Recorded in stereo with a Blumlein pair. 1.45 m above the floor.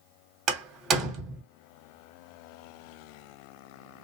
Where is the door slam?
30° right, 1.4 m.